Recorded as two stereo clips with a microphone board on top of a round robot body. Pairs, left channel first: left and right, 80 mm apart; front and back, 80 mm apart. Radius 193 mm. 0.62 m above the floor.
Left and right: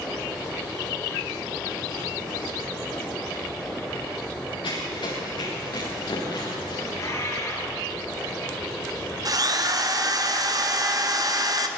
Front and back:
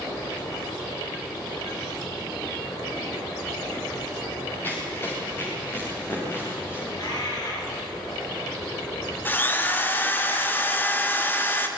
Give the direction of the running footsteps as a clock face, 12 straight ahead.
10 o'clock.